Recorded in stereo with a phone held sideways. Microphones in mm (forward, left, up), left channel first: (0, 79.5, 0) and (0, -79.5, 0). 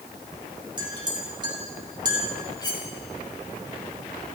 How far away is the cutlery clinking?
About 4 m.